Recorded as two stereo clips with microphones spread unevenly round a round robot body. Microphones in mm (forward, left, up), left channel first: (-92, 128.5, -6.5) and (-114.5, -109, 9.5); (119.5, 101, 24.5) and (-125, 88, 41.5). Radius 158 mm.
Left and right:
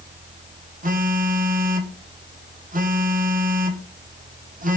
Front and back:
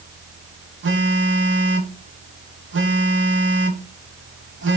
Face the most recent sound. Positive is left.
turn(degrees=-145)